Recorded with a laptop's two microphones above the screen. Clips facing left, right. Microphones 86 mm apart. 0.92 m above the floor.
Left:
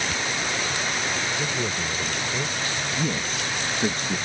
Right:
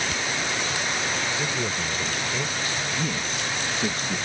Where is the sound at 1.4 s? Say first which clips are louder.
Even; 5° left (ahead or behind).